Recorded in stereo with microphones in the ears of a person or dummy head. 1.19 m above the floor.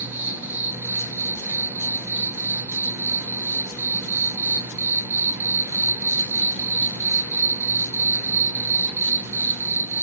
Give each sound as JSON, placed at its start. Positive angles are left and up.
{"t": 0.0, "sound": "an insect", "side_deg": -10, "distance_m": 0.9}